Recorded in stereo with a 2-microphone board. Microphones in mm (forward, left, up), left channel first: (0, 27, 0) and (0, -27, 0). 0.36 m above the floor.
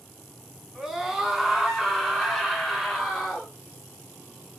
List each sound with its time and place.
0.8 s a scream: 5° right (ahead or behind), 3.5 m; by 3.5 s 5° left (ahead or behind), 5 m